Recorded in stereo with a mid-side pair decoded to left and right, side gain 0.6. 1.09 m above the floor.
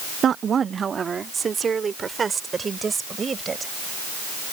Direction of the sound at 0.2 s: 45° right.